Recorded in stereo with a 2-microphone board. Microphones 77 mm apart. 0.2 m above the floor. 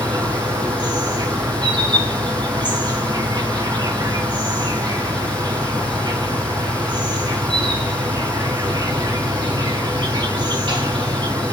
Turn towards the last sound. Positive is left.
turn(degrees=-75)  # may be behind; listen again after turning